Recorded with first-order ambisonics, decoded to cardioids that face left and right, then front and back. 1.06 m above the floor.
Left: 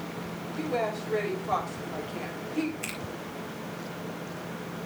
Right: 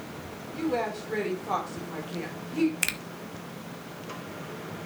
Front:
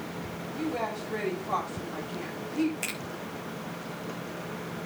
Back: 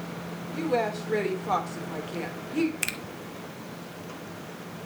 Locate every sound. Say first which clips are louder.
0.5 s a woman speaking: right 1 dB, back 5 dB; 160° right, 4 m
2.8 s a finger snap: right 7 dB, back 3 dB; 115° right, 1.3 m